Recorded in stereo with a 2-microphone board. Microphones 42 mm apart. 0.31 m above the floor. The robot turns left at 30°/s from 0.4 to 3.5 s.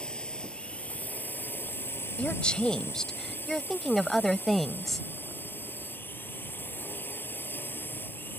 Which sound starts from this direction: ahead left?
A woman speaking, at 2.2 s.